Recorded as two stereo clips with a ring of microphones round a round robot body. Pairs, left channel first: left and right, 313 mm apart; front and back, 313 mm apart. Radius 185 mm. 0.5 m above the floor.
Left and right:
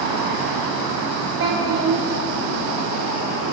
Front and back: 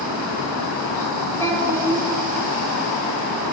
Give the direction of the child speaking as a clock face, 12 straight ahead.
3 o'clock.